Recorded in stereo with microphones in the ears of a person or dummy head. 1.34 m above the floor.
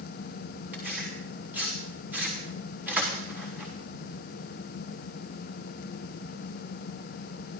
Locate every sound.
0.7 s tearing paper: 15° right (ahead or behind), 4 m